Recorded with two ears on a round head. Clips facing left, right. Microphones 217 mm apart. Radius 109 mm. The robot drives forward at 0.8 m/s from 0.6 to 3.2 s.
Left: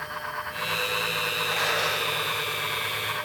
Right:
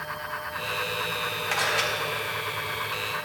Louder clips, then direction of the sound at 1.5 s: Even; 80° right.